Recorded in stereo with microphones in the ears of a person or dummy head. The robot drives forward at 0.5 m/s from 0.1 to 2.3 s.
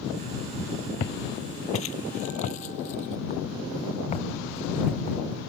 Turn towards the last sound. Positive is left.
turn(degrees=30)  # may be behind; listen again after turning